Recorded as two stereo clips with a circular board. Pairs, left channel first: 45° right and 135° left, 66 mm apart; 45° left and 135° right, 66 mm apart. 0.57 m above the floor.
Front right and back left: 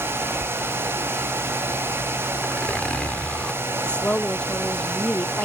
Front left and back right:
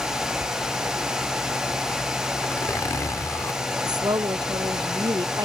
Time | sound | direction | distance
2.4 | a zipper | 25° left | ?
3.8 | a woman speaking | 120° right | ?